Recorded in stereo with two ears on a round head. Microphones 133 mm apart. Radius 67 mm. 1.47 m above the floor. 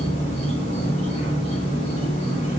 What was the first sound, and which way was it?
An insect, 40° left (ahead or behind).